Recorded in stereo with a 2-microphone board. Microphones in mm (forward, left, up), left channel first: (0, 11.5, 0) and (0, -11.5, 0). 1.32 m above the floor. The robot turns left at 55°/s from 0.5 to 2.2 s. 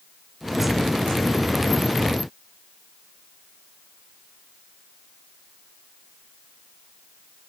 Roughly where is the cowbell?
I don't hear a cowbell.